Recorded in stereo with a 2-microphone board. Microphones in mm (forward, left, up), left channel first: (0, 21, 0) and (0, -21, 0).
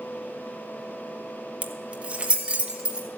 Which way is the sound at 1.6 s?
30° right (ahead or behind).